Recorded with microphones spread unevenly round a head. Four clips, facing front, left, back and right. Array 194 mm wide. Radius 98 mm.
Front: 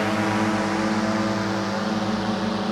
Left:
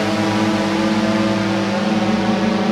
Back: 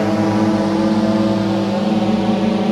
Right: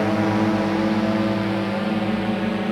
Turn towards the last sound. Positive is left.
turn(degrees=150)